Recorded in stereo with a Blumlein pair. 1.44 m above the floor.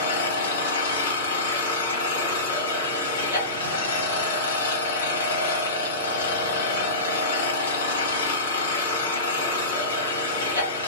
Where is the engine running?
65° left, 1.0 m.